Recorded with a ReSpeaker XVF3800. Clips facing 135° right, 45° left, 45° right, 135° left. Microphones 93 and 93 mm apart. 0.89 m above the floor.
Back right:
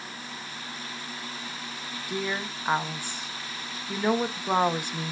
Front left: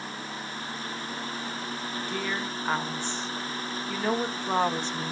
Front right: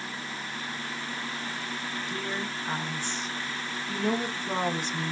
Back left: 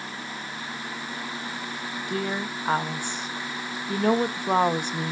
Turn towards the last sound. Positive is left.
turn(degrees=145)